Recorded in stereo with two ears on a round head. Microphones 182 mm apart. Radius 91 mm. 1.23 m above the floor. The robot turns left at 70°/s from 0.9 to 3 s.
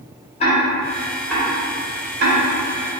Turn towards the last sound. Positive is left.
turn(degrees=-60)  # may be behind; listen again after turning